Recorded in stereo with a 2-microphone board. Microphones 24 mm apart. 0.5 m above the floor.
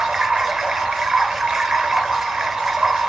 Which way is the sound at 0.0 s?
40° right (ahead or behind).